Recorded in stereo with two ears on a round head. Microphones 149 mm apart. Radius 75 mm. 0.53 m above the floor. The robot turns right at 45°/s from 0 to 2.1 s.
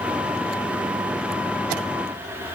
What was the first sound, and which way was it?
Only background noise.